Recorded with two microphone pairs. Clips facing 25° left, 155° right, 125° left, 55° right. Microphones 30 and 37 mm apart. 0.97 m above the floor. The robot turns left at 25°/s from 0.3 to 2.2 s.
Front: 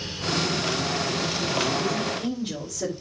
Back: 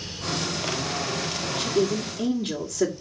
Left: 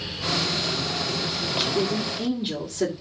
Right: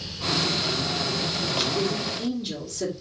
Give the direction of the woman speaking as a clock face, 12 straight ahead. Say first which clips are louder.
Back 3 dB, left 3 dB; 5 o'clock.